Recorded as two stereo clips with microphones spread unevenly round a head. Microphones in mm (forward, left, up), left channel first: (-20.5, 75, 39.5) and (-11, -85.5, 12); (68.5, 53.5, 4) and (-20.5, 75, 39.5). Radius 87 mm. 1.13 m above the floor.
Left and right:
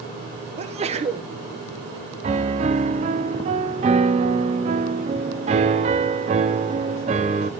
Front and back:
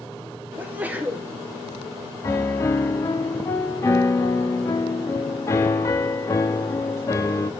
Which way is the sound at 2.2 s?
100° right.